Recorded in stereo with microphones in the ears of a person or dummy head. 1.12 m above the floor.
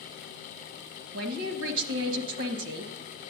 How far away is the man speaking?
About 1.0 m.